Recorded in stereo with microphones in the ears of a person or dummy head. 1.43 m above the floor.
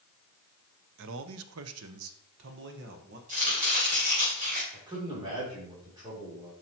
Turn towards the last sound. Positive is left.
turn(degrees=-20)  # may be behind; listen again after turning